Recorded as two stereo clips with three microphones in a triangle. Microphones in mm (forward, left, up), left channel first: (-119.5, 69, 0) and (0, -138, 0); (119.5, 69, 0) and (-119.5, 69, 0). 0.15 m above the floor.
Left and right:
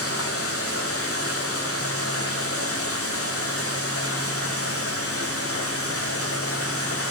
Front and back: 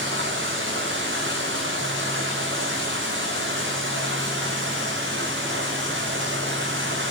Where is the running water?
140° left, 6 m.